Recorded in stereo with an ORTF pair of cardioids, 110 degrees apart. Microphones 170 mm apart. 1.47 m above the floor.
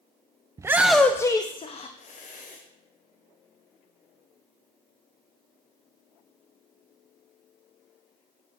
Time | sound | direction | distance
0.6 | a shout | 20° right | 0.5 m